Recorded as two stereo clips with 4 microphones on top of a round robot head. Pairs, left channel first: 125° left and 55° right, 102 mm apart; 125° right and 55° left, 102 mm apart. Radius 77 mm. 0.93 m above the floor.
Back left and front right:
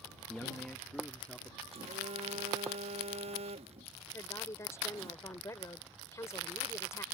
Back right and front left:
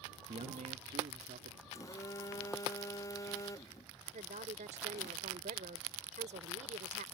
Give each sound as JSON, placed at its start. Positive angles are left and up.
{"t": 0.3, "sound": "a man speaking", "azimuth_deg": 40}
{"t": 1.7, "sound": "a phone buzzing", "azimuth_deg": -70}
{"t": 4.1, "sound": "a woman speaking", "azimuth_deg": 65}